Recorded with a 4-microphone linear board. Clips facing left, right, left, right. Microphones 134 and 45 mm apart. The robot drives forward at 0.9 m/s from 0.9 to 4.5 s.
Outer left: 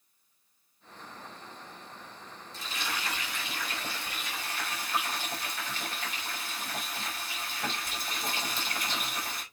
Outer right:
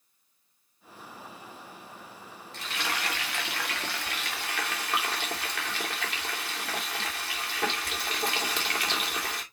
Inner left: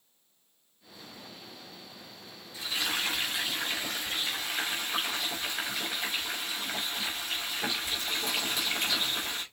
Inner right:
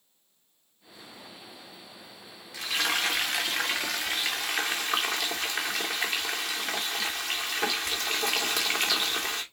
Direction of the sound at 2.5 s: 70° right (ahead or behind).